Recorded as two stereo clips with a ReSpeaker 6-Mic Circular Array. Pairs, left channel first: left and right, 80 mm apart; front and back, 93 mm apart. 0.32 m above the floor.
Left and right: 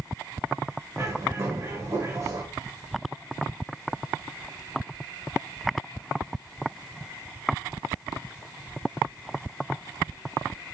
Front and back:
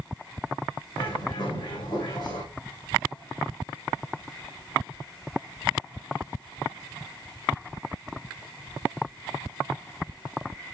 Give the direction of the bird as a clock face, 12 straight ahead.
1 o'clock.